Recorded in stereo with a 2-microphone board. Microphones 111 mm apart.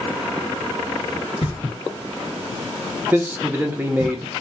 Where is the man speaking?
15° right (ahead or behind), 0.8 m.